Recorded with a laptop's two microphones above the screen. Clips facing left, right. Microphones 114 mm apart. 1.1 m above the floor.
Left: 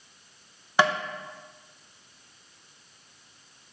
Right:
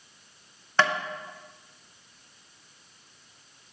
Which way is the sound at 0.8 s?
15° left (ahead or behind).